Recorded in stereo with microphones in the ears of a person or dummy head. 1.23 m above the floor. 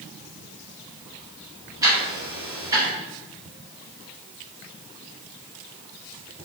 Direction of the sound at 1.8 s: 15° right (ahead or behind).